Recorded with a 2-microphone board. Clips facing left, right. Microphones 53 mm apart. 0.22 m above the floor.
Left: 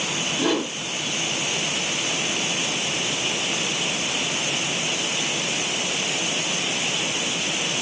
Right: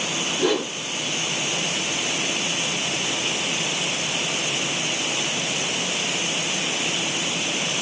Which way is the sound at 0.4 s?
10° right (ahead or behind).